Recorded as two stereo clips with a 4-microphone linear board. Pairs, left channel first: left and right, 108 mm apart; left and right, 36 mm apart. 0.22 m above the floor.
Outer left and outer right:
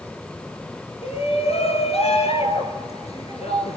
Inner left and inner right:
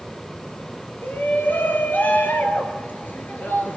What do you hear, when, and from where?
1.0 s a shout: 70° left (ahead or behind), 4.5 m